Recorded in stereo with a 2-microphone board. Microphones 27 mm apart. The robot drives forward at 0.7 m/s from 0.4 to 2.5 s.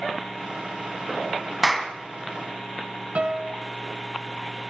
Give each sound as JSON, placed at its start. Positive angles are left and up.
{"t": 1.6, "sound": "a clap", "side_deg": 0, "distance_m": 3.0}
{"t": 3.1, "sound": "a piano", "side_deg": -50, "distance_m": 1.7}